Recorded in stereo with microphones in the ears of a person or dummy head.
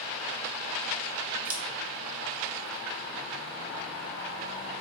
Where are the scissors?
10° right (ahead or behind), 0.7 m.